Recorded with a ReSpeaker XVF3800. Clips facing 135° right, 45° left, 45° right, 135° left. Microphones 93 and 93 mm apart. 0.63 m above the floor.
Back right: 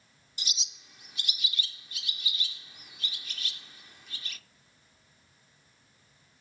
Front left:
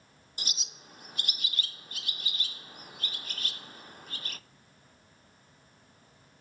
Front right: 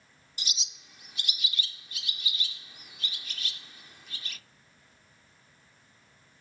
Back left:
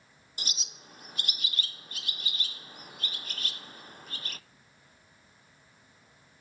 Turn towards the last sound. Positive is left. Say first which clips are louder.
# front left 1 dB, back left 1 dB
turn(degrees=90)